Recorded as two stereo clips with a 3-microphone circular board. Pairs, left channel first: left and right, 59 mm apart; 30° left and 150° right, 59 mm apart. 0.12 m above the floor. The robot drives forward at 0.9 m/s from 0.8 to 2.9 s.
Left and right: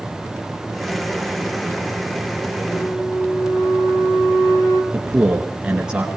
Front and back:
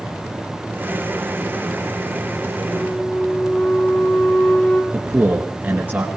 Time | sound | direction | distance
2.7 | a flute | 90° left | 2.5 m
4.9 | a man speaking | 150° right | 1.9 m